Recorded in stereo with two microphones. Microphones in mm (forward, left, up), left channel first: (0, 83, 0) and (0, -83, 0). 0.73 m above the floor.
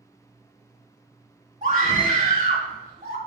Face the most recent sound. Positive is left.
turn(degrees=-55)  # may be behind; listen again after turning